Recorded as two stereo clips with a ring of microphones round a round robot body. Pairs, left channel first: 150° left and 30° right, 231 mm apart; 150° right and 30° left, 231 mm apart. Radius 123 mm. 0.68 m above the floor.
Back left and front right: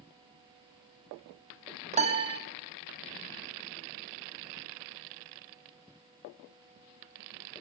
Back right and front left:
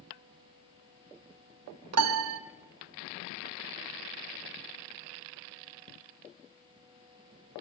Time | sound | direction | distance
1.9 | a piano | 30° left | 0.6 m